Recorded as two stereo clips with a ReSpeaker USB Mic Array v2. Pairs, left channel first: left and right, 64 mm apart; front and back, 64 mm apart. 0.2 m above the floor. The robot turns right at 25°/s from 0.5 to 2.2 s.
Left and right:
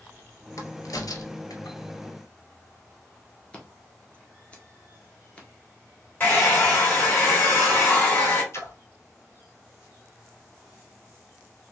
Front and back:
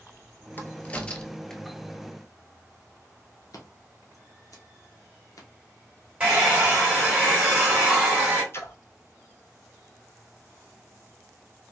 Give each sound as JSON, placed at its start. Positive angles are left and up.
{"t": 0.6, "sound": "a crack", "azimuth_deg": 60, "distance_m": 0.6}
{"t": 3.5, "sound": "scissors", "azimuth_deg": 20, "distance_m": 1.0}
{"t": 6.2, "sound": "a hair dryer", "azimuth_deg": 125, "distance_m": 1.8}
{"t": 8.5, "sound": "a splash", "azimuth_deg": 45, "distance_m": 0.6}